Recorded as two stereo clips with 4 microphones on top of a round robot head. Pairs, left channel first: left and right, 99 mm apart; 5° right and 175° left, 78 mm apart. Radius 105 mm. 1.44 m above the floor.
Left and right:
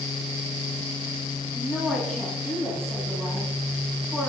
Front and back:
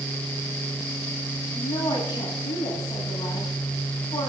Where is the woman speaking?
5° left, 9.5 m.